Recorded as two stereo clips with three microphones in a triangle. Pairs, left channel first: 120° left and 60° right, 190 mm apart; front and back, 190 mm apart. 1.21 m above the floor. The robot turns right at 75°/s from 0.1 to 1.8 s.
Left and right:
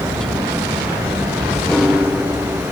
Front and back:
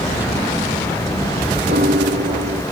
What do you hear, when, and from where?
1.7 s a piano: 155° right; by 2.6 s 145° right